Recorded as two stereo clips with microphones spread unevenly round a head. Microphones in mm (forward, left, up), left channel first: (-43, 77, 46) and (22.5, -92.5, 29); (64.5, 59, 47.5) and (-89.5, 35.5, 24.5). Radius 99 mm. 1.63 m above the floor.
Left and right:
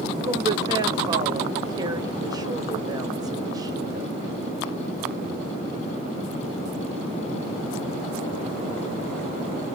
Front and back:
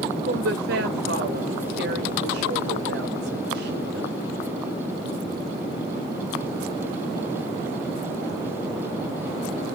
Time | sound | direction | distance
0.2 | a woman speaking | 140° right | 0.9 m